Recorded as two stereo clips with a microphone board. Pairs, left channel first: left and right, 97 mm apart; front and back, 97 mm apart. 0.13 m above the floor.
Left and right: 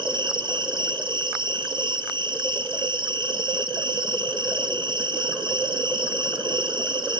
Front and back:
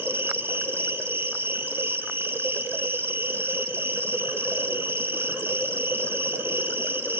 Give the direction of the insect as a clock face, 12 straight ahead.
4 o'clock.